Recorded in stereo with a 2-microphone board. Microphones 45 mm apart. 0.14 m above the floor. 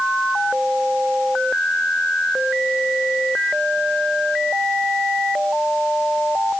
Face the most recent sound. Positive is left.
No sound to turn to.